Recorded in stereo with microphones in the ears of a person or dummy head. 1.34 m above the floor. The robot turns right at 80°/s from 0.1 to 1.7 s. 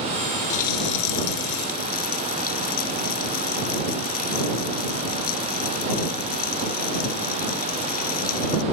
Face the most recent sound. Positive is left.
turn(degrees=130)